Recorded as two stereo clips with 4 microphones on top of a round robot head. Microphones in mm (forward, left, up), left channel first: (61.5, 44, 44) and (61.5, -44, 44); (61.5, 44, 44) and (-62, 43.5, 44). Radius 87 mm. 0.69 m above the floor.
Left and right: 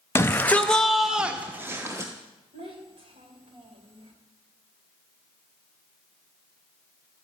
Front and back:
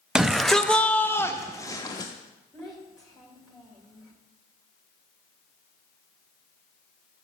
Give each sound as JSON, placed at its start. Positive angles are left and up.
{"t": 0.1, "sound": "a shout", "azimuth_deg": 100, "distance_m": 1.0}
{"t": 2.5, "sound": "a child speaking", "azimuth_deg": -90, "distance_m": 2.5}